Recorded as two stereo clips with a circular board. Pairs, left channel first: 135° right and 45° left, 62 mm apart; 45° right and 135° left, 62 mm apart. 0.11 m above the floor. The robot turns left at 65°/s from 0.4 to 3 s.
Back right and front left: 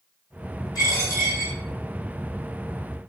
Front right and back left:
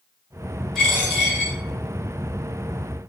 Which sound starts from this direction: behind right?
A dropped coin, at 0.8 s.